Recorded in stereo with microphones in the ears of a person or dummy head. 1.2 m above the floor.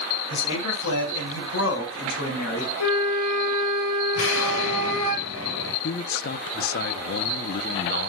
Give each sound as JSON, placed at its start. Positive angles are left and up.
{"t": 0.3, "sound": "a man speaking", "side_deg": 80, "distance_m": 7.0}
{"t": 2.8, "sound": "a flute", "side_deg": 55, "distance_m": 3.5}
{"t": 4.2, "sound": "an explosion", "side_deg": 85, "distance_m": 7.5}
{"t": 5.8, "sound": "a man speaking", "side_deg": 50, "distance_m": 0.8}